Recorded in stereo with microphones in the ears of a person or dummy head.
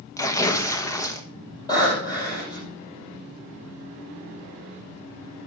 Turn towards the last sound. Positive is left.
turn(degrees=20)  # may be behind; listen again after turning